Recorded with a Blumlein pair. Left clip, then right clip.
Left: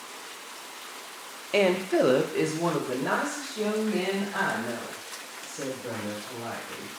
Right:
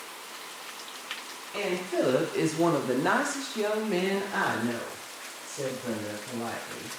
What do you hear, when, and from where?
1.5 s a woman speaking: 45° left, 0.6 m; by 6.9 s 60° right, 2.5 m